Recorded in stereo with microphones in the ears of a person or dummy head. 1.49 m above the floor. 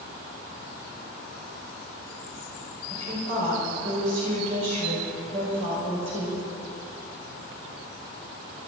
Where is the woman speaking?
45° right (ahead or behind), 5.5 m.